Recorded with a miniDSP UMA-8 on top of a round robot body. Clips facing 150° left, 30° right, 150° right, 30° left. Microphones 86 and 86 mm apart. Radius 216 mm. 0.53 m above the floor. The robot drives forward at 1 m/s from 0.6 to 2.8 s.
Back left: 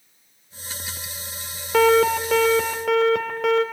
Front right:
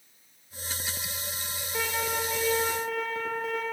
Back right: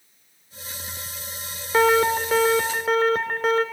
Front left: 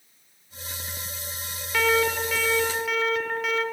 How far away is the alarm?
About 2.5 m.